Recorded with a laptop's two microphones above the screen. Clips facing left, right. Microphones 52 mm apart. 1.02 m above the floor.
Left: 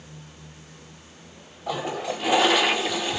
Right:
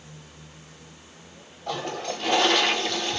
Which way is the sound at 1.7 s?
5° left (ahead or behind).